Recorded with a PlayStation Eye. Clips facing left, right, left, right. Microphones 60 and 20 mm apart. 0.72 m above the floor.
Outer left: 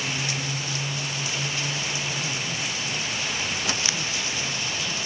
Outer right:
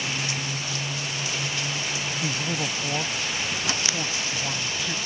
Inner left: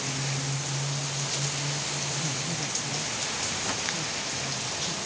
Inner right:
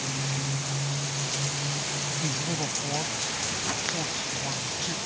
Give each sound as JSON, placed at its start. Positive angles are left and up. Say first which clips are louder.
{"t": 2.2, "sound": "a man speaking", "louder": "outer right 2 dB, inner right 1 dB", "side_deg": -65}